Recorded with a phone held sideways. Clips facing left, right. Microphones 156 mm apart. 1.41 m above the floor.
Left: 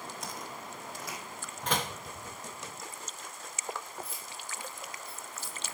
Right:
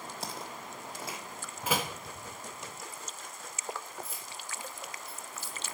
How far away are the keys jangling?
About 5 m.